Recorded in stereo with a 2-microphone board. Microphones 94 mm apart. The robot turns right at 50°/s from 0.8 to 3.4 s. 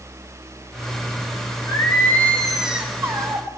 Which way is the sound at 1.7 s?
135° left.